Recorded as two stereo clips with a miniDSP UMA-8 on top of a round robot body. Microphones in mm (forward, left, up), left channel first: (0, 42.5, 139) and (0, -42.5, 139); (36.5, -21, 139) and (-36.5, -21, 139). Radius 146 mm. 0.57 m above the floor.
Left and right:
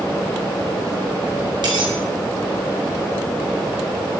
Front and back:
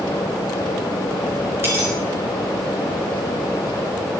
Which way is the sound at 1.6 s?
120° right.